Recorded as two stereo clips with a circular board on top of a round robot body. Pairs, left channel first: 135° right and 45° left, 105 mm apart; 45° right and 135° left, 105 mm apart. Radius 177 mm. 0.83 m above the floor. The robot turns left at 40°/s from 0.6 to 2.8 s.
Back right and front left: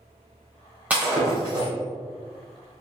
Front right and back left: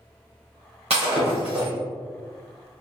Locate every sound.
0.9 s breaking glass: 120° left, 0.9 m; by 1.7 s 85° left, 0.9 m